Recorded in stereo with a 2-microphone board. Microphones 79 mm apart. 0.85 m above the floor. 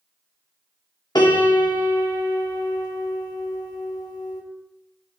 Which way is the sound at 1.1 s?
55° left (ahead or behind).